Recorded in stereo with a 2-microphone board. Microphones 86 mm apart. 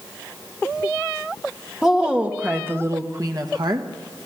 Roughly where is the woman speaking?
Centre.